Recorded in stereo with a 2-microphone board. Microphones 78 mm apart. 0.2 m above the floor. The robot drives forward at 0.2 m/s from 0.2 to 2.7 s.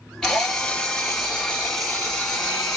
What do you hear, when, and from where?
0.2 s a drill: 10° left (ahead or behind), 1.5 m; by 2.8 s 5° left (ahead or behind), 1.9 m